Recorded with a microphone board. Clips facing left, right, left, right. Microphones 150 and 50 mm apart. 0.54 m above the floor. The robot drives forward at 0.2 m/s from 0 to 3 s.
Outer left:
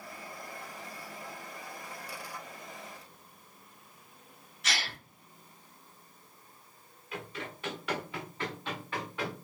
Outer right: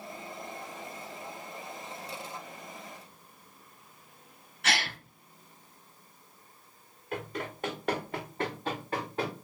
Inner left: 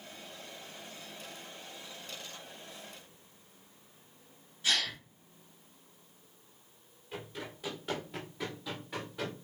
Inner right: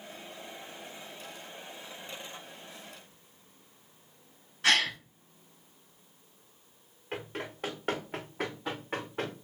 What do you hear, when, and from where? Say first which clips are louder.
4.6 s a gasp: outer right 5 dB, inner right 6 dB; 60° right (ahead or behind), 2.5 m
7.1 s running footsteps: outer right 5 dB, inner right 5 dB; 50° right (ahead or behind), 3.5 m; by 9.4 s 35° right (ahead or behind), 2.5 m